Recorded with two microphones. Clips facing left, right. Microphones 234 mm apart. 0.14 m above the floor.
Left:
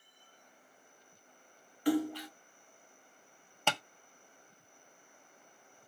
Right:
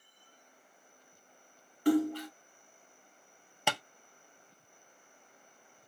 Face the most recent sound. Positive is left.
turn(degrees=-10)  # may be behind; listen again after turning